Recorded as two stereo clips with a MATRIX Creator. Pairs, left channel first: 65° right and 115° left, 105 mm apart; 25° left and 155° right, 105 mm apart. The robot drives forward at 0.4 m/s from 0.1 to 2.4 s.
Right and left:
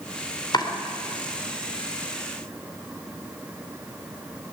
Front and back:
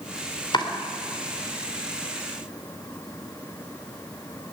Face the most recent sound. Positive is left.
turn(degrees=-30)